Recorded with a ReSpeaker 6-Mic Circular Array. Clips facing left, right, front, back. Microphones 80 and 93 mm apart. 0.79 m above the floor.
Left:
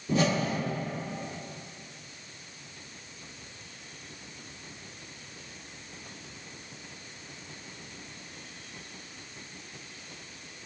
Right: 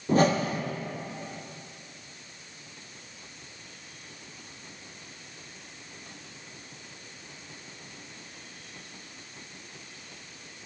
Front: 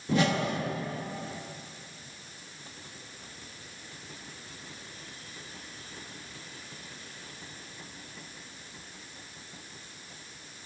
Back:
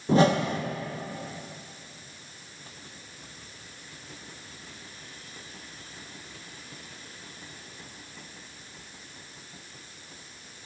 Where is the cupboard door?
No cupboard door in this recording.